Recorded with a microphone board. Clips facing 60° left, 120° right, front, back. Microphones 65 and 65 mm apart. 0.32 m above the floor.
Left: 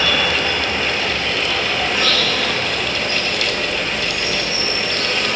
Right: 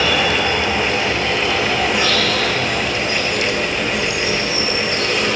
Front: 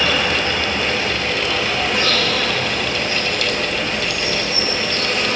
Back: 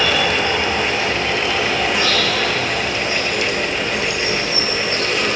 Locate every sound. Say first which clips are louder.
0.0 s an insect: right 2 dB, back 1 dB; 40° right, 7 m